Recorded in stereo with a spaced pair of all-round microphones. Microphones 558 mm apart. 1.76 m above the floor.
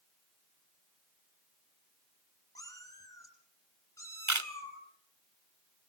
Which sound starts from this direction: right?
A camera shutter, at 4.3 s.